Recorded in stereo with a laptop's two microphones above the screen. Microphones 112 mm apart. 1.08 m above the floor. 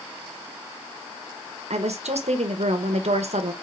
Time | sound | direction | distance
1.7 | a woman speaking | 75° right (ahead or behind) | 0.8 m